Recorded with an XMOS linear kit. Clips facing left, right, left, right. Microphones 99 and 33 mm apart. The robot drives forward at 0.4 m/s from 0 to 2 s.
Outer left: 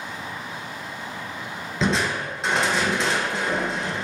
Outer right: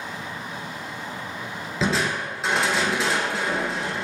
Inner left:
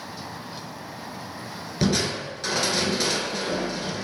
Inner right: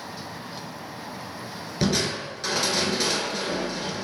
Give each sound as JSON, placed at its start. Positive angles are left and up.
{"t": 1.8, "sound": "crushing", "side_deg": -5, "distance_m": 0.6}